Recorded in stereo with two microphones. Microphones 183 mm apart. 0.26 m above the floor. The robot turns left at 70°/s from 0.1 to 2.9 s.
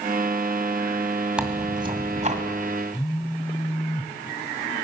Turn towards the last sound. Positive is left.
turn(degrees=15)  # may be behind; listen again after turning